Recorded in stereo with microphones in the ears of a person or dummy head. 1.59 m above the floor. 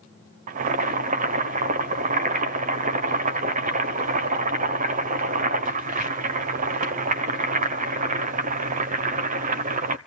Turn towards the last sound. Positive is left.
turn(degrees=-45)  # may be behind; listen again after turning